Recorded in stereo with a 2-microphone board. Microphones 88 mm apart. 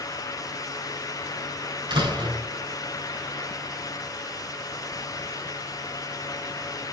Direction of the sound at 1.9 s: 75° right (ahead or behind).